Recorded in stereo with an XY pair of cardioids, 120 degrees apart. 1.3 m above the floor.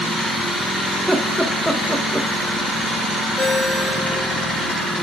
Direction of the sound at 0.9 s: 5° right.